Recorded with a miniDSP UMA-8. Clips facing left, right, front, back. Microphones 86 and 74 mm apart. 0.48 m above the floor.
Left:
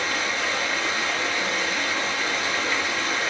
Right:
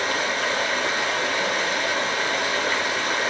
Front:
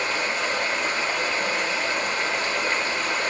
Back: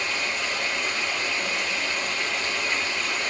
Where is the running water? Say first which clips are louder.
Right 2 dB, front 3 dB; 50° right, 0.7 m.